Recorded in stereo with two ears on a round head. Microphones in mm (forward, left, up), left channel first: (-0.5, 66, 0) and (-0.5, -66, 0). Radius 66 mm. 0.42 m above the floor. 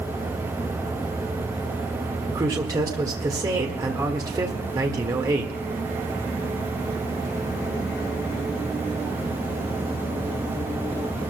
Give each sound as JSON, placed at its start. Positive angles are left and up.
{"t": 2.3, "sound": "a man speaking", "side_deg": -25, "distance_m": 1.5}